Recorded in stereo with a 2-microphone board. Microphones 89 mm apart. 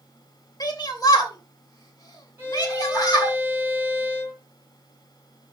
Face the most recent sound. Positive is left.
turn(degrees=-25)  # may be behind; listen again after turning